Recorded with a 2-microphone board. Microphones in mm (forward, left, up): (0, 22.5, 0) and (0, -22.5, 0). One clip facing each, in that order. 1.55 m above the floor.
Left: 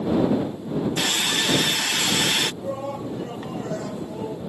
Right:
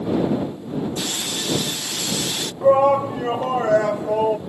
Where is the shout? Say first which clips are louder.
Right 14 dB; 75° right (ahead or behind).